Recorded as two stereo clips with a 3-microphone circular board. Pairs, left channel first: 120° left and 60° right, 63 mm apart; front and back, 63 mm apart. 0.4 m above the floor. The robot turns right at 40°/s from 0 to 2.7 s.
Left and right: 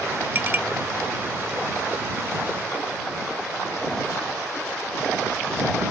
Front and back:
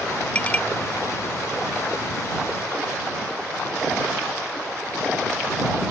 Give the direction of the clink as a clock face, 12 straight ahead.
2 o'clock.